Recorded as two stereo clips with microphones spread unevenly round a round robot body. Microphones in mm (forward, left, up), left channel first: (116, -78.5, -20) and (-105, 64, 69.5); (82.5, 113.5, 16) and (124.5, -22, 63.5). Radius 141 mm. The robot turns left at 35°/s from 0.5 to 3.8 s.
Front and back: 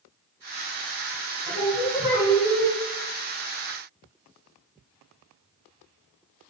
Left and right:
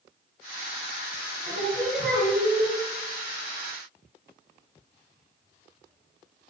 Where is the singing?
95° right, 2.5 m; by 2.7 s 140° right, 2.5 m.